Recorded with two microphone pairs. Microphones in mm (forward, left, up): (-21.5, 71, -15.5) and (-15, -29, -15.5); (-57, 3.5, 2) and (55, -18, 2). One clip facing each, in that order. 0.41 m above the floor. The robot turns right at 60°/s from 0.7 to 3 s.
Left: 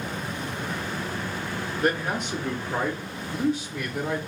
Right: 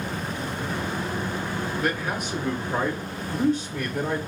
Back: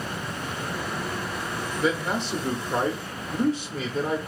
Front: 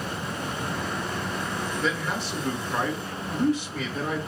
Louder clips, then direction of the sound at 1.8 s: Left 5 dB, back 6 dB; 100° left.